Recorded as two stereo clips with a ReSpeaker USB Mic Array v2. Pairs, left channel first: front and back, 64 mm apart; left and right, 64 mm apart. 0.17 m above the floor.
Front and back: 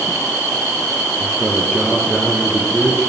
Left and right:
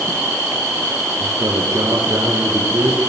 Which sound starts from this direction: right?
A man speaking, at 1.2 s.